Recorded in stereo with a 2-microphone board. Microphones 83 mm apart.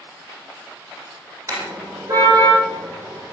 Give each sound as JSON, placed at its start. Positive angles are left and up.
{"t": 1.5, "sound": "a car horn", "side_deg": -35, "distance_m": 9.0}